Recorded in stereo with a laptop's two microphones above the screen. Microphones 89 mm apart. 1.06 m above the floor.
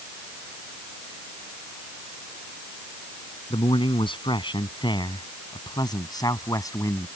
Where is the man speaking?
70° left (ahead or behind); by 7.1 s 35° left (ahead or behind).